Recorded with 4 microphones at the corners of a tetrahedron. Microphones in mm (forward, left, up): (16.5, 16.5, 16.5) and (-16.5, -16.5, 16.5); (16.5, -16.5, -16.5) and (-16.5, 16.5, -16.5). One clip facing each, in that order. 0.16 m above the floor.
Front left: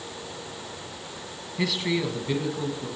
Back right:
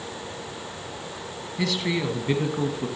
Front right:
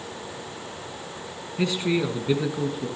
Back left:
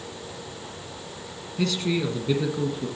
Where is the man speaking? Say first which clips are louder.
Even, front right 1 dB; 20° right, 1.6 m; by 2.9 s 130° right, 2 m.